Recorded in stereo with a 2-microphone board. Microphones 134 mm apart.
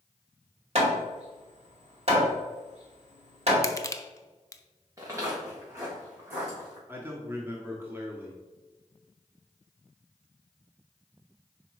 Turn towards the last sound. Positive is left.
turn(degrees=-15)  # may be behind; listen again after turning